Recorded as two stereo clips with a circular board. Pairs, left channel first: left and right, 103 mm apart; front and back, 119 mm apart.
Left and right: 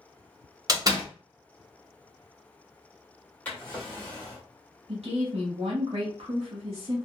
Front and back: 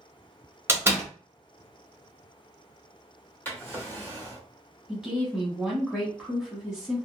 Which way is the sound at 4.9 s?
90° right.